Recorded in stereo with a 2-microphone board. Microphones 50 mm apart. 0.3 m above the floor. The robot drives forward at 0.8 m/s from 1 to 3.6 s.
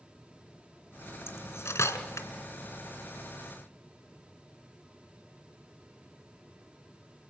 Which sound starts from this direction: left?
Cutlery clinking, at 1.3 s.